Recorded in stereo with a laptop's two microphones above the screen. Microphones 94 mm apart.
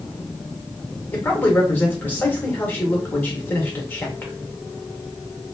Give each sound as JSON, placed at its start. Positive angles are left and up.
{"t": 1.1, "sound": "a man speaking", "side_deg": 20, "distance_m": 1.2}